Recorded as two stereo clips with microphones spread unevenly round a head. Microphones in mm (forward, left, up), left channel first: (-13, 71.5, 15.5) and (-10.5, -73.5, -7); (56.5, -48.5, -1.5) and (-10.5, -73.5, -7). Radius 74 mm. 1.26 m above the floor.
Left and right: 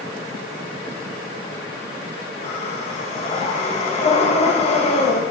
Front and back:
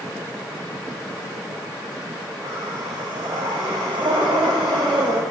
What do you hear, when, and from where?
2.4 s breathing: 140° left, 1.3 m